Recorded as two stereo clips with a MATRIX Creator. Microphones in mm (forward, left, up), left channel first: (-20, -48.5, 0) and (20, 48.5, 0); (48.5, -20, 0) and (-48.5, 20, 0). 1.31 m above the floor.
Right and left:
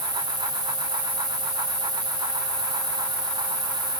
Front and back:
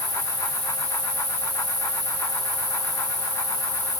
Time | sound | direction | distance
0.0 | an insect | 30° left | 2.5 m